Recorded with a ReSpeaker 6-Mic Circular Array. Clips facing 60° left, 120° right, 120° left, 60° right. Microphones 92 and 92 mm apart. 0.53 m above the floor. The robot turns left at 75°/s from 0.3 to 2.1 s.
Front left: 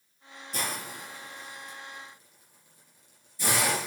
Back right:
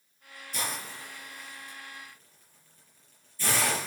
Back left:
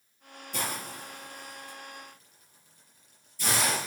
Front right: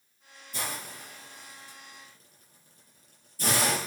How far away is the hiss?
About 5.5 m.